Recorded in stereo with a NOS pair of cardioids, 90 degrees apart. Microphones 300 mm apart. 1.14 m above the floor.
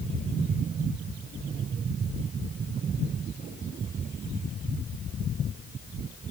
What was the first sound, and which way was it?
Only background noise.